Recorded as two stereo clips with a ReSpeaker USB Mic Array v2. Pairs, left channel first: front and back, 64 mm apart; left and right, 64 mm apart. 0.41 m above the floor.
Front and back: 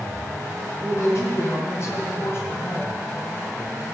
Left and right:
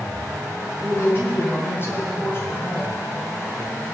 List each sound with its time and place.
0.8 s a woman speaking: 35° left, 5 m; by 3.0 s 50° left, 2.5 m